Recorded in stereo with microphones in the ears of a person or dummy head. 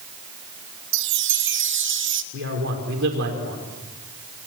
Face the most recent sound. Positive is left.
turn(degrees=-70)  # may be behind; listen again after turning